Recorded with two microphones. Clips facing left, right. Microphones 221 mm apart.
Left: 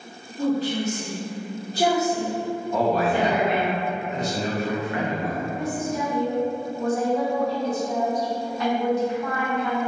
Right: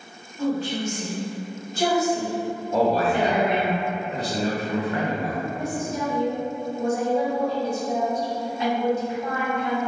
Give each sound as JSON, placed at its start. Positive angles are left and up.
{"t": 0.4, "sound": "a woman speaking", "side_deg": 35, "distance_m": 1.1}
{"t": 2.7, "sound": "a man speaking", "side_deg": -35, "distance_m": 0.7}
{"t": 5.5, "sound": "a woman speaking", "side_deg": -25, "distance_m": 1.8}